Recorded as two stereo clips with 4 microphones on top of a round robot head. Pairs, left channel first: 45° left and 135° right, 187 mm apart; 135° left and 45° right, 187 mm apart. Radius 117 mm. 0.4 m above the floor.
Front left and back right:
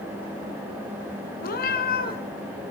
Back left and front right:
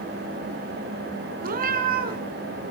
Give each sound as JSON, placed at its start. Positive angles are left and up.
{"t": 1.4, "sound": "a cat meowing", "azimuth_deg": 0, "distance_m": 2.0}